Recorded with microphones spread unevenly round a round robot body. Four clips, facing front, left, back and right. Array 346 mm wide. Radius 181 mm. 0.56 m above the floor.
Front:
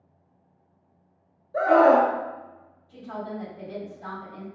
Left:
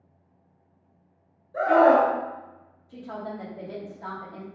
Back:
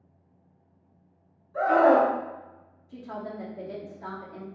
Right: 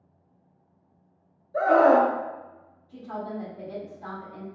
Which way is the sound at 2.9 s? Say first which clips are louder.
Right 1 dB, front 2 dB; 145° left.